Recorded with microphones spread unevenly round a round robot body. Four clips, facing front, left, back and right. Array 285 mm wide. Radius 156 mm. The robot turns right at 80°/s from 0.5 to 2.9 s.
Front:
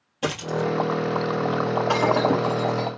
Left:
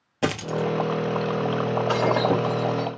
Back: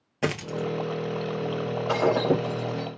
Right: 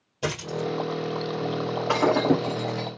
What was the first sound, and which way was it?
A dropped coin, 90° left.